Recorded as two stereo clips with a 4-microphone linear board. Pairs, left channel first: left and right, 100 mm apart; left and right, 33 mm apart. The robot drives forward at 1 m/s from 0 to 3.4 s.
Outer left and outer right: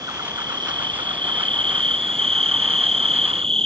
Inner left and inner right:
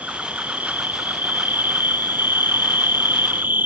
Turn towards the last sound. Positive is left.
turn(degrees=-75)  # may be behind; listen again after turning